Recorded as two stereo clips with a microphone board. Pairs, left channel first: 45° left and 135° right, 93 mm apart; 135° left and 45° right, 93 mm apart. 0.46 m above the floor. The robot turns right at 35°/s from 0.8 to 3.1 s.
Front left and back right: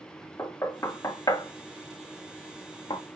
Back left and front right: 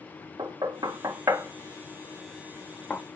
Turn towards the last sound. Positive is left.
turn(degrees=65)